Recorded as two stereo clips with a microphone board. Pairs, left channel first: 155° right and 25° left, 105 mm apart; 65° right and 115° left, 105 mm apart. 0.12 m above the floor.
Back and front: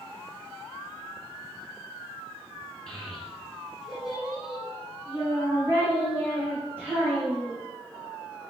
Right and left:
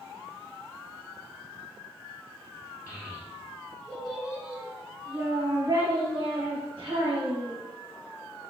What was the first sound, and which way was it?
A child speaking, 80° right.